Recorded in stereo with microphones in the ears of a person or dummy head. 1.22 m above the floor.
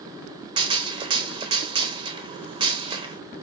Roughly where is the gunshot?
Right.